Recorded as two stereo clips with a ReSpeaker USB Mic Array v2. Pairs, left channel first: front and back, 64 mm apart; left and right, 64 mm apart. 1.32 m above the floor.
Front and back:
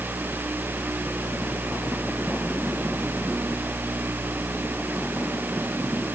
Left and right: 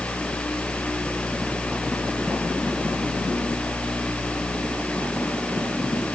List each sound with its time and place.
Only background noise.